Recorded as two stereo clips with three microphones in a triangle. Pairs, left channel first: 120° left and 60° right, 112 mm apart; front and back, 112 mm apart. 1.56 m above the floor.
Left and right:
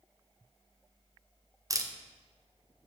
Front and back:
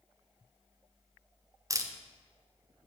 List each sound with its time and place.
1.7 s a camera shutter: 115° right, 0.8 m